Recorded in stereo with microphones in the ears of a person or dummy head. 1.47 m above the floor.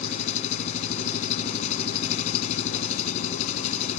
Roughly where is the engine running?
Left.